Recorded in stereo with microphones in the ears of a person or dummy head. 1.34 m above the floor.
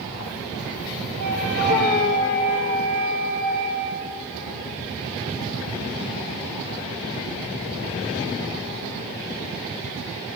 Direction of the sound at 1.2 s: 55° right (ahead or behind).